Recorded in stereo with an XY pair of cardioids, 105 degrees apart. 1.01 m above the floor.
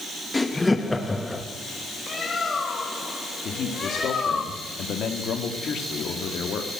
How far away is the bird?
About 2.0 m.